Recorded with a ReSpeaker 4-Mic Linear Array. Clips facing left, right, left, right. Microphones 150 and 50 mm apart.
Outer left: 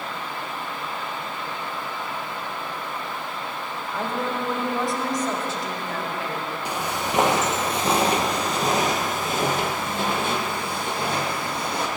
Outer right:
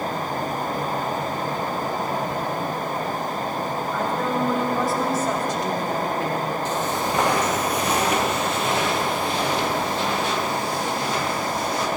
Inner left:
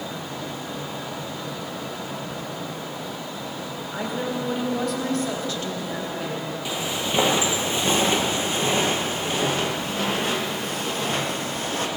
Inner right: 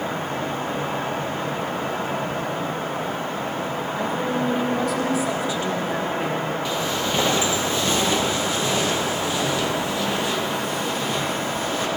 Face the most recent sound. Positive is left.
turn(degrees=55)  # may be behind; listen again after turning